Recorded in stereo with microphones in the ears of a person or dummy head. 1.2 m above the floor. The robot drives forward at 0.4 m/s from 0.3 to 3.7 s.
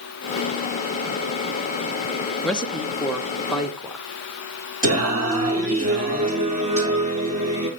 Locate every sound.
2.4 s a man speaking: 5° left (ahead or behind), 1.2 m; by 4.0 s centre (ahead or behind), 1.6 m
4.8 s singing: 40° right (ahead or behind), 4 m